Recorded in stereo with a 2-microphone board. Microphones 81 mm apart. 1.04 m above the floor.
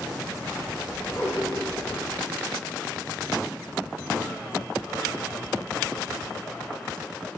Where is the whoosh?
40° left (ahead or behind), 2.5 m.